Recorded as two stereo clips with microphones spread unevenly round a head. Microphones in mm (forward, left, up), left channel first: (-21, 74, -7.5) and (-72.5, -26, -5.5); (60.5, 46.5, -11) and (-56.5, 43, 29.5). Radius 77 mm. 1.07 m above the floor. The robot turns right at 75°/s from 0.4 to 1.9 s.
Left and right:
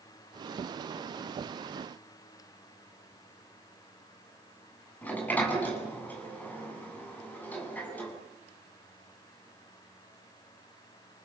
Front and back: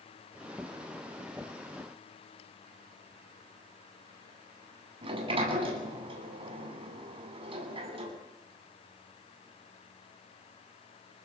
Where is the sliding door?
140° left, 8.5 m.